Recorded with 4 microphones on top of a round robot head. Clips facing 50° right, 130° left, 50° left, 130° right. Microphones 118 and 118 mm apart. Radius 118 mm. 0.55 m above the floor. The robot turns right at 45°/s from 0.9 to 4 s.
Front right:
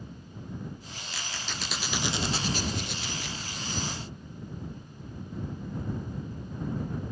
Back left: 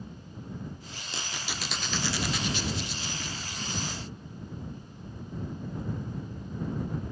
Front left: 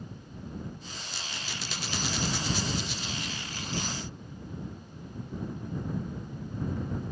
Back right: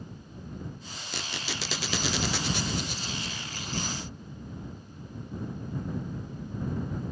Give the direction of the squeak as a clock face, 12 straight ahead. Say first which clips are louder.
Back left 1 dB, back right 6 dB; 5 o'clock.